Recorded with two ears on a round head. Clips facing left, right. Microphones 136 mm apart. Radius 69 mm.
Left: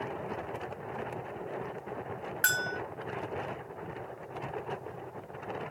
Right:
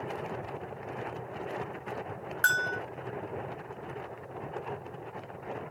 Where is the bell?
15° left (ahead or behind).